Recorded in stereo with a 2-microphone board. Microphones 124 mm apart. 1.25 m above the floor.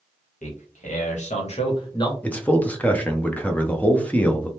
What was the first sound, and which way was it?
A man speaking, 90° left.